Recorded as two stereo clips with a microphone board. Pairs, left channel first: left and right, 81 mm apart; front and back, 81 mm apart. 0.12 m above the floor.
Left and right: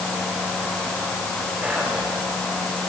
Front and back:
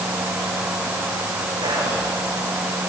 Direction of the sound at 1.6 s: 160° right.